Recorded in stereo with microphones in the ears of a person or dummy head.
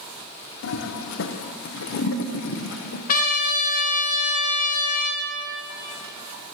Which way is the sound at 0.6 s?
70° left (ahead or behind).